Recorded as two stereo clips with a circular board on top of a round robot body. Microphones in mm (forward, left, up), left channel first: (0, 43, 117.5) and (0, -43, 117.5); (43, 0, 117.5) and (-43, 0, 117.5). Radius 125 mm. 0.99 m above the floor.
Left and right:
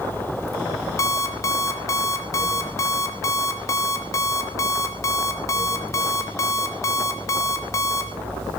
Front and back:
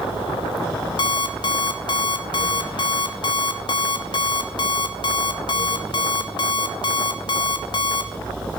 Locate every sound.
1.0 s an alarm clock: 35° left, 1.6 m